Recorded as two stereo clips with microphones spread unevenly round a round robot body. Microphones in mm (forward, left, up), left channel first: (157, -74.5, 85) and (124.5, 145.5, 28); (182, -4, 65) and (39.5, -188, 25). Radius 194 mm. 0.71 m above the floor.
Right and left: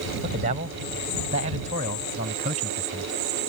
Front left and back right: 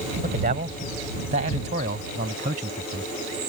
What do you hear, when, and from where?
0.2 s a man speaking: 165° left